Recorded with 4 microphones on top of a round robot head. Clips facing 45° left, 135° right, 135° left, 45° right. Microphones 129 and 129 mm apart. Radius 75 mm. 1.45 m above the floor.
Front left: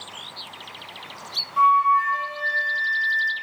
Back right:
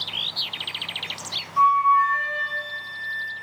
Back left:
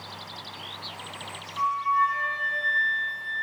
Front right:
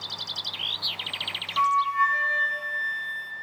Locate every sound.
1.6 s a flute: 45° right, 0.5 m